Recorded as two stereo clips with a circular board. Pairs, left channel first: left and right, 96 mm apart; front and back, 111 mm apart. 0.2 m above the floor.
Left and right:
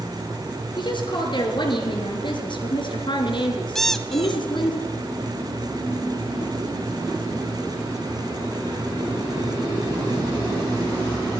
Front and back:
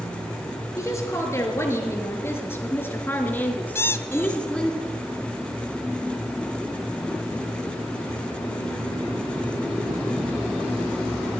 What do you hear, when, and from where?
0.8 s a woman speaking: 60° left, 4.5 m; by 4.8 s 80° left, 3 m
3.8 s a squeak: 10° left, 1.0 m